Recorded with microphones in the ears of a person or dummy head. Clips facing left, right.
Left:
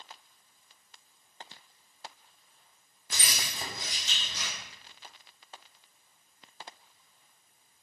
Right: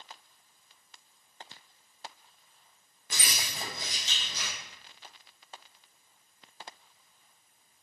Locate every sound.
3.1 s keys jangling: 45° right (ahead or behind), 1.2 m; by 4.5 s 65° right (ahead or behind), 2.5 m